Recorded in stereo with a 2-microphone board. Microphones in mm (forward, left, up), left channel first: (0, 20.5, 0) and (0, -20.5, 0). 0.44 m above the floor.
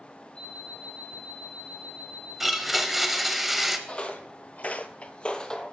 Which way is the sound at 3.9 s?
30° left (ahead or behind).